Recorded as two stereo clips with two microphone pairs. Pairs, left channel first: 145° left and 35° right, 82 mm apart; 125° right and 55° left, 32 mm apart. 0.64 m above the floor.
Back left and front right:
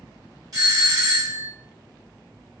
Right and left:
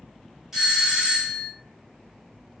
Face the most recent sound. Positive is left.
turn(degrees=-20)